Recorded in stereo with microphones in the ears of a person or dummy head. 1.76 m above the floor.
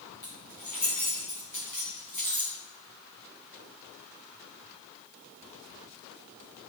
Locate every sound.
0.2 s keys jangling: centre (ahead or behind), 1.2 m